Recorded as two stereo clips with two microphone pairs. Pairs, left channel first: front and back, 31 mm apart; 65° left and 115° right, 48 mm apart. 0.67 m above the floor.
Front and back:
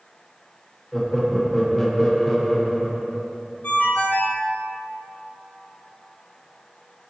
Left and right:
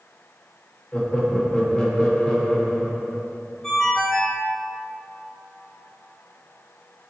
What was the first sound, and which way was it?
Laughter, 75° left.